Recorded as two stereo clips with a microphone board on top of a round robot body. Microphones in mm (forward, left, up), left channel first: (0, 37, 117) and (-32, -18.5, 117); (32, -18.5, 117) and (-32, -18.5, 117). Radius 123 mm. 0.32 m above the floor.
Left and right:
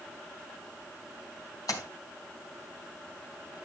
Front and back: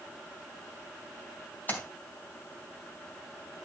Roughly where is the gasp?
I don't hear a gasp.